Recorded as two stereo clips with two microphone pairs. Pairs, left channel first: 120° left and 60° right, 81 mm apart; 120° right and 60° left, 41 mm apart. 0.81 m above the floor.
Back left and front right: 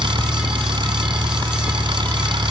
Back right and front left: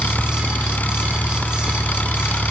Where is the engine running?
70° right.